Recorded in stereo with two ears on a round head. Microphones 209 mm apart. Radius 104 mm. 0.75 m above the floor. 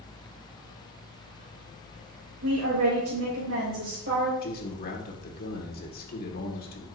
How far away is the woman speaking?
About 2.5 m.